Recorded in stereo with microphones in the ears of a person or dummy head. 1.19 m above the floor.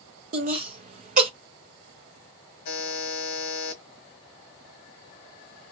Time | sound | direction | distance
0.3 | laughter | 45° right (ahead or behind) | 0.7 m
2.6 | a buzzer | 55° left (ahead or behind) | 0.9 m